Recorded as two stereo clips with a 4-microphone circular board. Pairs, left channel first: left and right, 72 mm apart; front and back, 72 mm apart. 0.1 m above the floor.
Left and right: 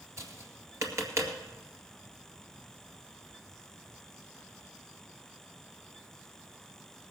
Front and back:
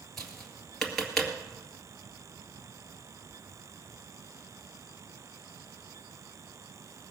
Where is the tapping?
85° right, 2 m.